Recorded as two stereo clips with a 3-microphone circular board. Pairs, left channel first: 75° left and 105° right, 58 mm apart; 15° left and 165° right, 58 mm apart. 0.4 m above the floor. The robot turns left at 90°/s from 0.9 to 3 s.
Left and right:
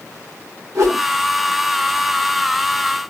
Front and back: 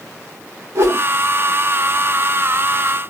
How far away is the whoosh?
About 4.5 m.